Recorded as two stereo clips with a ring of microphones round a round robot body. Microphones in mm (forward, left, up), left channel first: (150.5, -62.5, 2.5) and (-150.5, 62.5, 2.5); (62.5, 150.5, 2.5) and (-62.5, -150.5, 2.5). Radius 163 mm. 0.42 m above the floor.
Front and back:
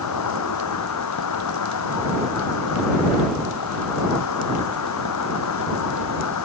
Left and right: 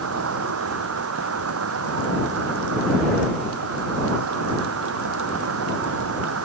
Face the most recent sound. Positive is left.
turn(degrees=-65)